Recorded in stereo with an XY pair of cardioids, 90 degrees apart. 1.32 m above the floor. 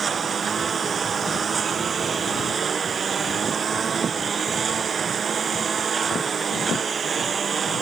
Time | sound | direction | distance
0.0 | a lawn mower | 55° right | ?